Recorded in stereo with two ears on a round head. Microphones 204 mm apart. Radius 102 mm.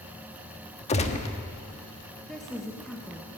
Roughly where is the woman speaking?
Centre.